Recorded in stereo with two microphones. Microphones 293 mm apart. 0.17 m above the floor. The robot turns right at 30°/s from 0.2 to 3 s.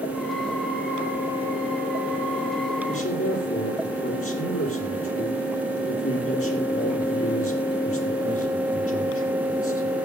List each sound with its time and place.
2.9 s a man speaking: 50° left (ahead or behind), 5.5 m